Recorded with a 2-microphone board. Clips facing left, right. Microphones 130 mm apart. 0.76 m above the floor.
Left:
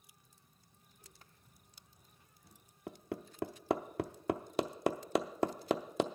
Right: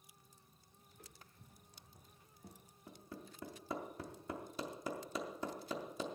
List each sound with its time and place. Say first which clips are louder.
0.9 s footsteps: right 3 dB; 75° right (ahead or behind), 2.5 m; by 2.7 s 35° right (ahead or behind), 1.5 m
2.9 s hammering: left 9 dB; 70° left (ahead or behind), 0.6 m